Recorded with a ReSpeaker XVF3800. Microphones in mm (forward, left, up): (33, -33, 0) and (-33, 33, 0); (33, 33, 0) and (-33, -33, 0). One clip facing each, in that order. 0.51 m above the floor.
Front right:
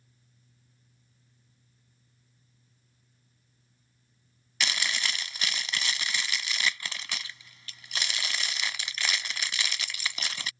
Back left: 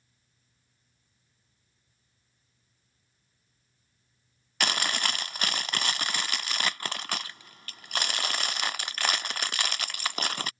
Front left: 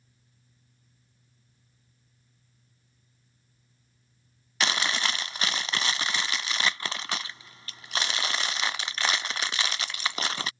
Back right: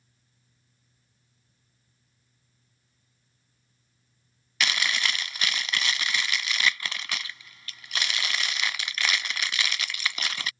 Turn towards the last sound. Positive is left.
turn(degrees=100)